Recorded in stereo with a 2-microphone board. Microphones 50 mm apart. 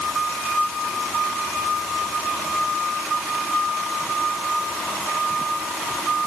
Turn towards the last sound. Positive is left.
No sound to turn to.